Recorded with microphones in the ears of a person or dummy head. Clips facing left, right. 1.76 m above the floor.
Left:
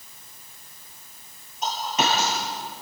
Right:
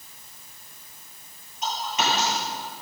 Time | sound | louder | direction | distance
1.6 | a dropped coin | left 2 dB | 35° left (ahead or behind) | 9.5 m